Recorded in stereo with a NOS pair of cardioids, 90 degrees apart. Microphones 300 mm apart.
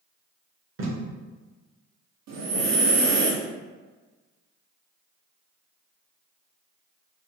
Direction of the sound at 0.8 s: 45° right.